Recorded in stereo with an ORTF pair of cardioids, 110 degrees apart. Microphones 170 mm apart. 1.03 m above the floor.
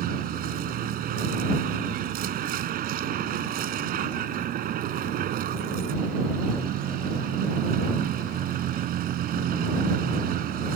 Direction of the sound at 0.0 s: 60° right.